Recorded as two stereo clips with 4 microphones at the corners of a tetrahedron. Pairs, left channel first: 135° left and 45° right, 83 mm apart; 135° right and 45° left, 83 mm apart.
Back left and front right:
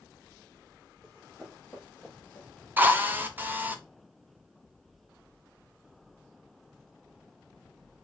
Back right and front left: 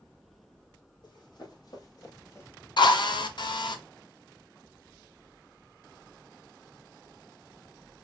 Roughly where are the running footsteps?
Behind right.